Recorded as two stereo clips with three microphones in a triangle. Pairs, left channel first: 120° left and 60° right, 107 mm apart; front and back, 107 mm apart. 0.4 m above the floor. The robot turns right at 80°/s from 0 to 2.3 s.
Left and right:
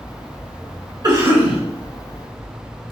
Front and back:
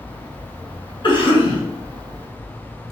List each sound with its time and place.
1.0 s a cough: 20° right, 1.6 m; by 1.6 s 25° left, 1.6 m